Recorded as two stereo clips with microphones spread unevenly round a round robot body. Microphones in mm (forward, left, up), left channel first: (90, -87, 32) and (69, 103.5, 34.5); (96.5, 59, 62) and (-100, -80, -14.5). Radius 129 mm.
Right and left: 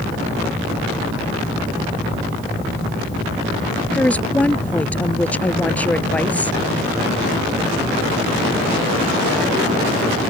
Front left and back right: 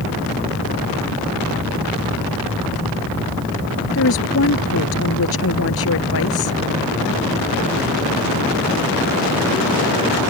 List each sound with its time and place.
3.9 s a woman speaking: straight ahead